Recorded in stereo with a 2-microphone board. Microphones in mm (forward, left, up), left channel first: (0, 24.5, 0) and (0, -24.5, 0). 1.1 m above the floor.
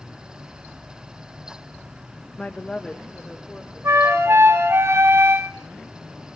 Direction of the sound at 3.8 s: 80° right.